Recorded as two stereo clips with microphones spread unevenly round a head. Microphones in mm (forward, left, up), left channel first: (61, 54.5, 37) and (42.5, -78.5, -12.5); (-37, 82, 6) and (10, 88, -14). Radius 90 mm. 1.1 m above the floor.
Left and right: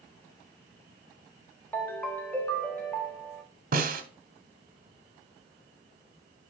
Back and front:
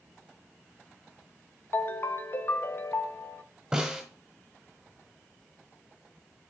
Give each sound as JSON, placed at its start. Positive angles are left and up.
{"t": 1.7, "sound": "a ringtone", "azimuth_deg": 160, "distance_m": 0.8}
{"t": 3.7, "sound": "a snare drum", "azimuth_deg": -100, "distance_m": 0.9}